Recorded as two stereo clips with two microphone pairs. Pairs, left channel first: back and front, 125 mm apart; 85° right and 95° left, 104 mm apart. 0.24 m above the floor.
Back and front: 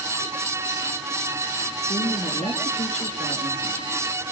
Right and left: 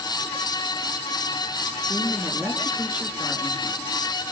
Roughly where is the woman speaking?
Behind.